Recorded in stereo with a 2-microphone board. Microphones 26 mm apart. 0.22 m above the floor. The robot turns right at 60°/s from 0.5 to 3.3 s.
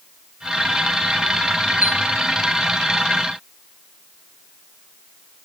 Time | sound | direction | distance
1.8 | a chime | 80° right | 6 m